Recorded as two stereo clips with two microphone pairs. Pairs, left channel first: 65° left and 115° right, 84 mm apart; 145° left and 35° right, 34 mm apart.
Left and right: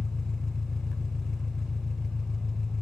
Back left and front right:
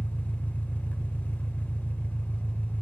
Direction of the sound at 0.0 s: 150° left.